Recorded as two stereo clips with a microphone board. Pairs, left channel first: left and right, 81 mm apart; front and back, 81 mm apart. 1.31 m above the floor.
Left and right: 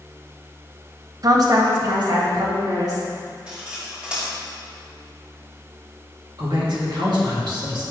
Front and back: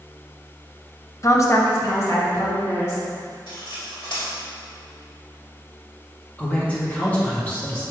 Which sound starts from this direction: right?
A man speaking, at 6.4 s.